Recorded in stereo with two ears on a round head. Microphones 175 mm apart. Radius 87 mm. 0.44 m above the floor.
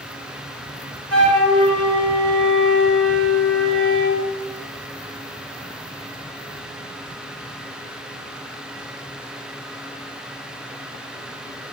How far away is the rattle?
I don't hear a rattle.